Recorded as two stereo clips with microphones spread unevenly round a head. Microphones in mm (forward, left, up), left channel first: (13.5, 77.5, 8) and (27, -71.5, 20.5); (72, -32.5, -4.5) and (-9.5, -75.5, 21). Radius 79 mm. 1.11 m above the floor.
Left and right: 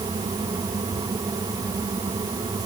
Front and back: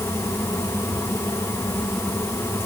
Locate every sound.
Only background noise.